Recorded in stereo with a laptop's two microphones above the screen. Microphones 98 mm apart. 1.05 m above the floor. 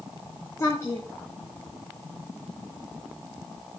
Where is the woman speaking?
25° left (ahead or behind), 1.0 m.